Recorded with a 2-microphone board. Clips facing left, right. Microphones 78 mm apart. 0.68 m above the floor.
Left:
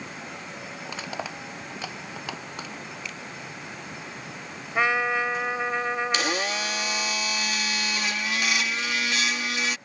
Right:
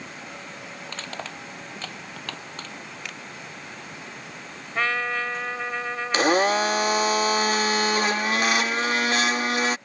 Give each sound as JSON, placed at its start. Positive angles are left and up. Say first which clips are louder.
{"t": 0.8, "sound": "crushing", "louder": "left 2 dB", "side_deg": 10}
{"t": 3.0, "sound": "a finger snap", "louder": "even", "side_deg": -75}
{"t": 4.8, "sound": "a trumpet", "louder": "left 2 dB", "side_deg": 15}
{"t": 6.1, "sound": "a blender", "louder": "right 7 dB", "side_deg": -45}